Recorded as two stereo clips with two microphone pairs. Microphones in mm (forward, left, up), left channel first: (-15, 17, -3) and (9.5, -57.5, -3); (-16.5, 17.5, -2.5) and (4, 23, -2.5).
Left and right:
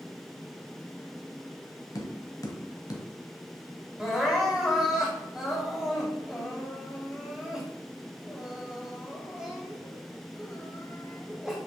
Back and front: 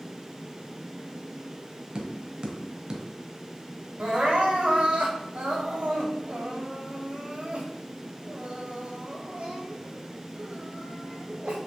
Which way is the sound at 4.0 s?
10° left.